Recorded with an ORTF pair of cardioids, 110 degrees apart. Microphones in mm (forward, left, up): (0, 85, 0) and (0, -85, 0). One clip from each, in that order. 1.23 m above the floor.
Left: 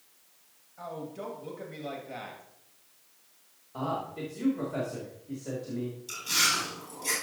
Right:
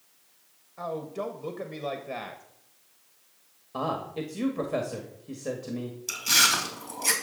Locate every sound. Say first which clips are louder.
0.8 s a man speaking: right 6 dB; 50° right, 1.3 m
3.7 s a man speaking: right 3 dB; 60° right, 1.8 m
6.1 s chewing: right 5 dB; 70° right, 3 m